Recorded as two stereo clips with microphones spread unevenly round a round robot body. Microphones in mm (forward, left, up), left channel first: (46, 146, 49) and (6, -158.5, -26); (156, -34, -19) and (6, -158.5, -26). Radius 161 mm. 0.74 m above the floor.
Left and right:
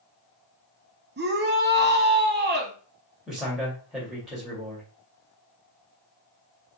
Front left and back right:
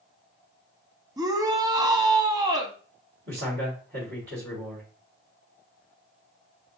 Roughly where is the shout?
Right.